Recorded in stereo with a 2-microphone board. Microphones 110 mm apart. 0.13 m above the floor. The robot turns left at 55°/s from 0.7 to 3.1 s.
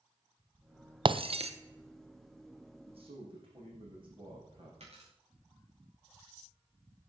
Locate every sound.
1.1 s breaking glass: 45° right (ahead or behind), 0.7 m; by 1.5 s 70° right (ahead or behind), 0.7 m
2.9 s a man speaking: 60° right (ahead or behind), 7 m; by 4.7 s 50° right (ahead or behind), 7 m
4.8 s a dropped coin: 70° right (ahead or behind), 6.5 m